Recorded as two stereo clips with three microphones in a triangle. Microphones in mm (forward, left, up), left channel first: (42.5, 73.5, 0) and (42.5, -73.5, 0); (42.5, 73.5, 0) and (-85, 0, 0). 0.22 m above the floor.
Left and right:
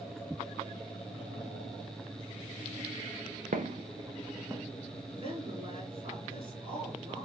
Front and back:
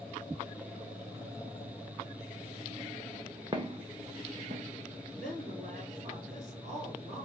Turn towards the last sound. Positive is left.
turn(degrees=-130)